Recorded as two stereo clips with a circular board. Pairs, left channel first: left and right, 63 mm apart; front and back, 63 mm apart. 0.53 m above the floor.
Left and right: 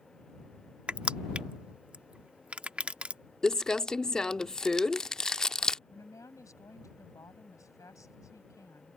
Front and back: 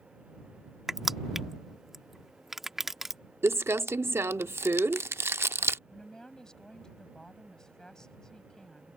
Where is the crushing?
105° right.